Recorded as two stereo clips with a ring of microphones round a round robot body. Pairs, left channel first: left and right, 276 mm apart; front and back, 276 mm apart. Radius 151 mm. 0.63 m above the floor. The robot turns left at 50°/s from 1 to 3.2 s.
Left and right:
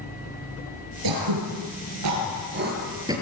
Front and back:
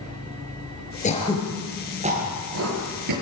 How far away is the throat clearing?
About 6 m.